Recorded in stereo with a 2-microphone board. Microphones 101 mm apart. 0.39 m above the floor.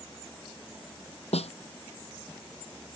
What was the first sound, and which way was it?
A snare drum, 80° left.